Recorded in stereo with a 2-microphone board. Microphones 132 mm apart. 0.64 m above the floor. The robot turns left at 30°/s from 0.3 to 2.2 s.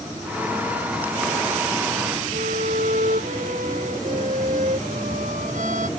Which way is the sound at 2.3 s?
65° right (ahead or behind).